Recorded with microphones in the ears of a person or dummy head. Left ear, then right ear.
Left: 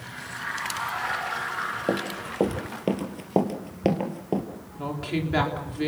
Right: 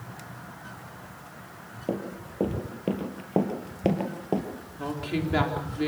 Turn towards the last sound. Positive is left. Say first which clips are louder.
# left 1 dB
turn(degrees=5)  # may be behind; listen again after turning